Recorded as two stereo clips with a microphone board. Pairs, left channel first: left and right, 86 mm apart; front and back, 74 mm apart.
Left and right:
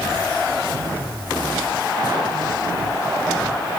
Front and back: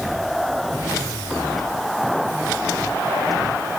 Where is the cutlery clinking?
No cutlery clinking in this recording.